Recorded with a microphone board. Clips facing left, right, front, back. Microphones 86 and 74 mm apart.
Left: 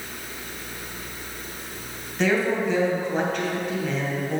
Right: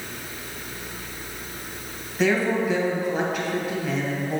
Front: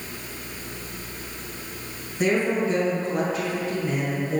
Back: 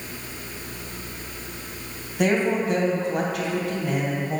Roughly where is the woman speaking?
Behind.